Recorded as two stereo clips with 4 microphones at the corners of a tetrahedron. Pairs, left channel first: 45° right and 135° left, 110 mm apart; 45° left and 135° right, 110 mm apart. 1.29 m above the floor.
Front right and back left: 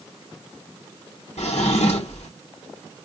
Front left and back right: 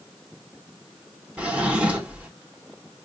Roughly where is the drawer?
Ahead right.